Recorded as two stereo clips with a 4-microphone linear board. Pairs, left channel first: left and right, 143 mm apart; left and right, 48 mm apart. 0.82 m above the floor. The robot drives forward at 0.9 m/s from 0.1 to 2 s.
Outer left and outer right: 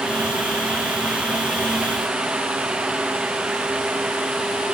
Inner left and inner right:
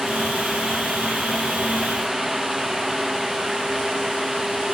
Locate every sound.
Only background noise.